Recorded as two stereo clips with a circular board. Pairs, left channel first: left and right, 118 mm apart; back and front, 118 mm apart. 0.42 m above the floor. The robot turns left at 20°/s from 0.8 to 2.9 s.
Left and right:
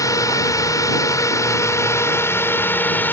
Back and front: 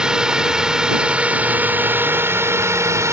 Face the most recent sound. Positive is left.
turn(degrees=35)